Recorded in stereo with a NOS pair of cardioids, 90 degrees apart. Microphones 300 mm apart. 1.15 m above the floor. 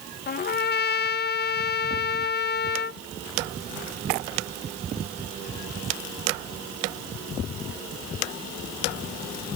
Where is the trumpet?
35° left.